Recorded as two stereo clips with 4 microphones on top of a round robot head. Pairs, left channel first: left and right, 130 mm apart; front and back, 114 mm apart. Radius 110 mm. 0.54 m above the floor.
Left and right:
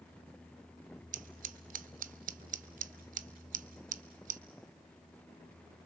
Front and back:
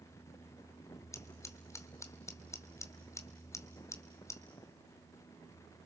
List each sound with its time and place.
1.1 s scissors: 70° right, 0.8 m